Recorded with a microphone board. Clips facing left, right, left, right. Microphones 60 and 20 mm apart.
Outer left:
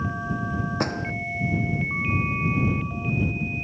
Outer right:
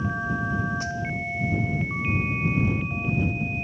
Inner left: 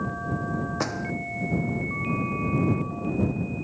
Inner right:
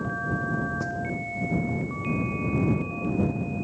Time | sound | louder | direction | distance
0.8 | a door slam | outer left 2 dB, inner left 1 dB | 60° left (ahead or behind) | ?